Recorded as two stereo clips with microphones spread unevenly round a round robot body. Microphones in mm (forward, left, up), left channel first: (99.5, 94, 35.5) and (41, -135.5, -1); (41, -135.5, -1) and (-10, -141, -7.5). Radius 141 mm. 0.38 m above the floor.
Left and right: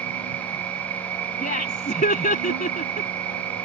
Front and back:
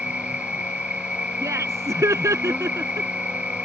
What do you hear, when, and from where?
0.0 s an insect: 105° right
1.4 s laughter: 140° left